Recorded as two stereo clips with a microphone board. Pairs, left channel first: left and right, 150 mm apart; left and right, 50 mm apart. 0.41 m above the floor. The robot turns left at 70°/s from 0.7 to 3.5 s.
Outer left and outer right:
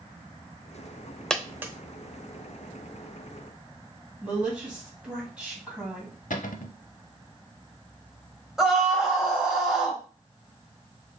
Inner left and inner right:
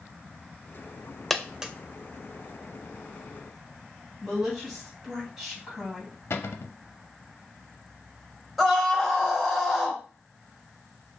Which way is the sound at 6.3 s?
70° left (ahead or behind).